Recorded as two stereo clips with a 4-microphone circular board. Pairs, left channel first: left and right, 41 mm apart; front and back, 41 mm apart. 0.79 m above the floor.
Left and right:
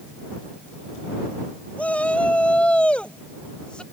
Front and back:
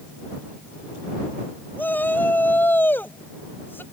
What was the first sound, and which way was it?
A shout, 35° left.